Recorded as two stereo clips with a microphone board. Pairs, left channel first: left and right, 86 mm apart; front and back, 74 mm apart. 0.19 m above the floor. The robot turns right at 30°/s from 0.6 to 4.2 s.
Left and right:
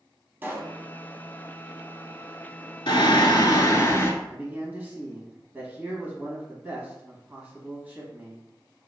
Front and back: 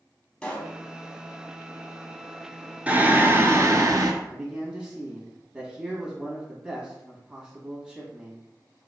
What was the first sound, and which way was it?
A pop, 65° right.